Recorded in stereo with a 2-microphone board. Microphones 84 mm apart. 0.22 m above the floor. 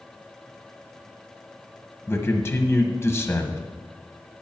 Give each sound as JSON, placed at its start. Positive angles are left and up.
{"t": 2.1, "sound": "a man speaking", "side_deg": 30, "distance_m": 1.2}